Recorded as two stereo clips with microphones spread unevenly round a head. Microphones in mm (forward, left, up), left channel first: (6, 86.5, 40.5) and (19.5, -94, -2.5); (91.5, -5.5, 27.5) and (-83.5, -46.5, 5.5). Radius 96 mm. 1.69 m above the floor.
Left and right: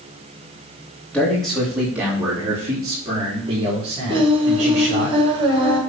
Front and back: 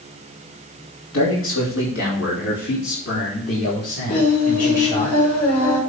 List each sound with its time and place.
1.1 s a man speaking: 10° left, 3 m; by 5.1 s 35° right, 5 m
4.1 s singing: 20° right, 5.5 m